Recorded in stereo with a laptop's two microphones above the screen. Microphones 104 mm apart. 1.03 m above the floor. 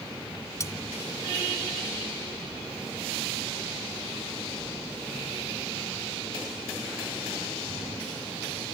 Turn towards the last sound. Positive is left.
turn(degrees=30)  # may be behind; listen again after turning